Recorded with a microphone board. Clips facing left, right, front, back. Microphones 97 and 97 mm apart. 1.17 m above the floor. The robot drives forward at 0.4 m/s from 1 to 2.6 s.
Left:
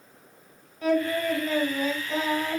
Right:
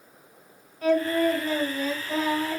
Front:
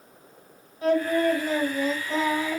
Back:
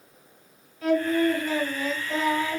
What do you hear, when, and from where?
0.8 s singing: 60° right, 2 m; by 2.6 s 75° right, 1.8 m